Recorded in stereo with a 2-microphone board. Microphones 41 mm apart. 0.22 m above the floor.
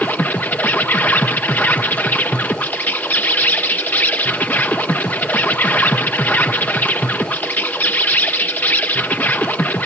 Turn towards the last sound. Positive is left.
turn(degrees=50)  # may be behind; listen again after turning